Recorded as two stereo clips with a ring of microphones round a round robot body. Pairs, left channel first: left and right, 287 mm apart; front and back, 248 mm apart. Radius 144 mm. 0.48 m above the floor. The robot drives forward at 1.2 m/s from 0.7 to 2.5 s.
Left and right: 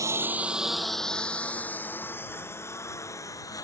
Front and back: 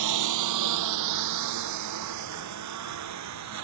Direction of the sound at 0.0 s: 170° right.